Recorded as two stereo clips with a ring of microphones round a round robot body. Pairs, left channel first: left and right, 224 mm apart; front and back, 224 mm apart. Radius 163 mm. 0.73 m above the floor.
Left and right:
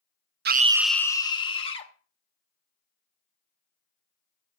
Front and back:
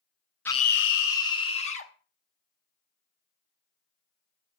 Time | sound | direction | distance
0.5 | a scream | 80° right | 0.5 m